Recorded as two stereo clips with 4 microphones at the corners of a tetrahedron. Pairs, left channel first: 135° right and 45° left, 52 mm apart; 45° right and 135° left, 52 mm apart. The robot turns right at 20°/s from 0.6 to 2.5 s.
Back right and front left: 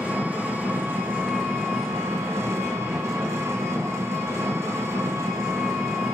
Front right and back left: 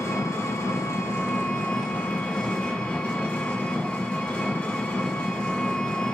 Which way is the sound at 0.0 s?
20° right.